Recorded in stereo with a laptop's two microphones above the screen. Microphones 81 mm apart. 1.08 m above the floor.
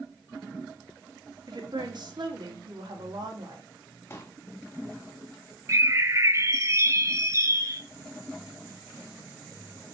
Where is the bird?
35° right (ahead or behind), 0.8 m.